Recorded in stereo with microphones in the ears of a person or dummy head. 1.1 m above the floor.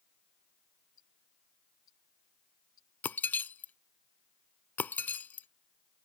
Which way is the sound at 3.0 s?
10° left (ahead or behind).